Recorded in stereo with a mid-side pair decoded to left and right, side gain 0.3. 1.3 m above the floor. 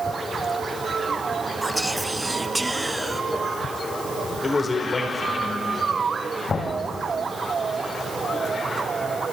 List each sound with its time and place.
1.6 s whispering: 15° right, 1.2 m
4.4 s a man speaking: 45° left, 4.5 m
6.5 s knocking: 65° left, 6.5 m